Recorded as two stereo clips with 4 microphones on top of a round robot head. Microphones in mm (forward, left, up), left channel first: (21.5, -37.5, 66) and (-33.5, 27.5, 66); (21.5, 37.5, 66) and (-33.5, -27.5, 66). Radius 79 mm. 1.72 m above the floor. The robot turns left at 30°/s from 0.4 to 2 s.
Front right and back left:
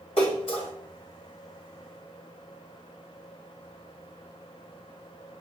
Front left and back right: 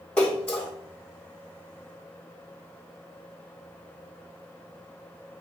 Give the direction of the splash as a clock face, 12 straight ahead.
1 o'clock.